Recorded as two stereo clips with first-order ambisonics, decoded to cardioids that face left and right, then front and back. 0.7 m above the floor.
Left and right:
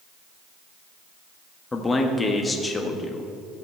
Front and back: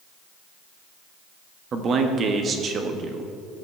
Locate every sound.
1.7 s a man speaking: 155° left, 0.9 m